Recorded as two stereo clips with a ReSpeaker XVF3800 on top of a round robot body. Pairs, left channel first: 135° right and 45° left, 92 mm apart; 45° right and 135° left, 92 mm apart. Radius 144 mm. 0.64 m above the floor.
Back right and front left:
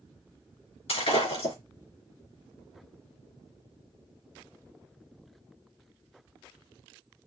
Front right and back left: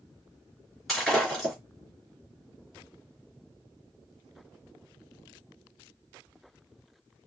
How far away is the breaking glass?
About 3.5 m.